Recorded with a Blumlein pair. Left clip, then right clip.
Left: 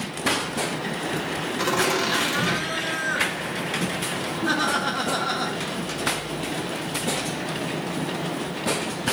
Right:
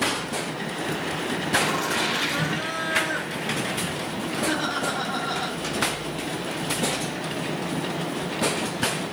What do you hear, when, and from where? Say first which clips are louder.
1.6 s laughter: left 6 dB; 35° left, 2.5 m